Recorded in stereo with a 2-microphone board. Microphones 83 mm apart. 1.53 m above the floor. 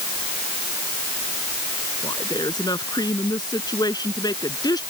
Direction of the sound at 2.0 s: 55° left (ahead or behind).